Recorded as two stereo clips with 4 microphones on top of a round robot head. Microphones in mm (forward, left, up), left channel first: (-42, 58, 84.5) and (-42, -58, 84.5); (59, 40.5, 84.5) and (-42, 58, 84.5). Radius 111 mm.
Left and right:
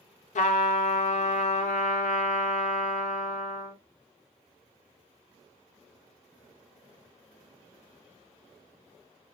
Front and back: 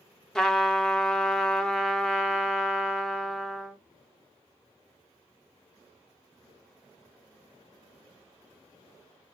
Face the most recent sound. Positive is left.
turn(degrees=75)